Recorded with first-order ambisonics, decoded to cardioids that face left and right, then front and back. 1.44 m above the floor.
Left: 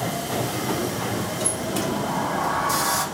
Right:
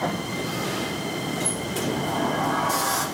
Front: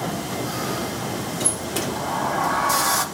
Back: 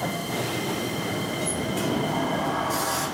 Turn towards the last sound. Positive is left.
turn(degrees=15)